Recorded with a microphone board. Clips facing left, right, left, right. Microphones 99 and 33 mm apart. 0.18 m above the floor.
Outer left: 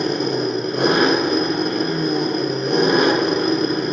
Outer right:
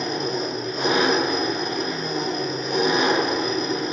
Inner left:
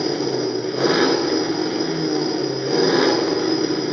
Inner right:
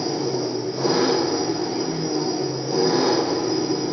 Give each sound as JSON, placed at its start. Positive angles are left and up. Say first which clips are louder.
{"t": 0.0, "sound": "an engine running", "louder": "outer left 5 dB, inner left 3 dB", "side_deg": 65, "distance_m": 0.8}